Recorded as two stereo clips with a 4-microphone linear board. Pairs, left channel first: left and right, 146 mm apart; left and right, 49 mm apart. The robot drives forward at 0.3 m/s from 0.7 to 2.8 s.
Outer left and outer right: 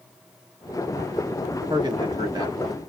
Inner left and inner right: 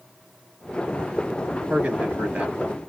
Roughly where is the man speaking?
Right.